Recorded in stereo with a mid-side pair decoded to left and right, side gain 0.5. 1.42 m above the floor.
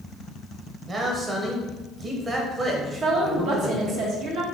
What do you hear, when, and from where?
0.9 s a man speaking: 30° right, 1.2 m
2.9 s a woman speaking: 65° right, 1.4 m